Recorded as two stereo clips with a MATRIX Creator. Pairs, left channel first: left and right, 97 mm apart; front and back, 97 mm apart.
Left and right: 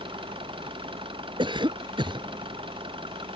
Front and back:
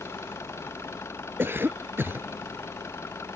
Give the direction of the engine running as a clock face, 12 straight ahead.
2 o'clock.